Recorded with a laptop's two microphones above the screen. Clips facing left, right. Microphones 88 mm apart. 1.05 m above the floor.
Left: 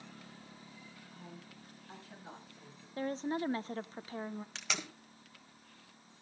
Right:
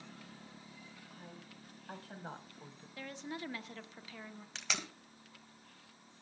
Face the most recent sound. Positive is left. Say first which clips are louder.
# right 3 dB
turn(degrees=0)  # may be behind; listen again after turning